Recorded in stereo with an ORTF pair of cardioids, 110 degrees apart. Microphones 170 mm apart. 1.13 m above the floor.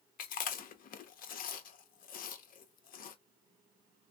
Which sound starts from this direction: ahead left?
Chewing, at 0.2 s.